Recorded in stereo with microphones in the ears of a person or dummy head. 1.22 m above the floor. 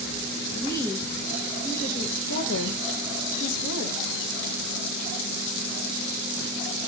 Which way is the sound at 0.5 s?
10° left (ahead or behind).